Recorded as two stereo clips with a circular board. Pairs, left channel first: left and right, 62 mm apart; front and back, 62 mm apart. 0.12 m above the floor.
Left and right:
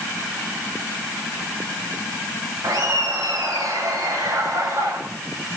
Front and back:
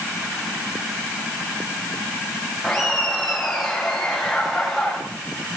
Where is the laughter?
90° right, 6 m.